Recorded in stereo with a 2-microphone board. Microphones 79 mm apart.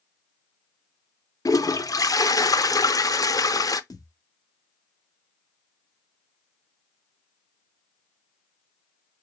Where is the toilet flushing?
50° left (ahead or behind), 0.5 m.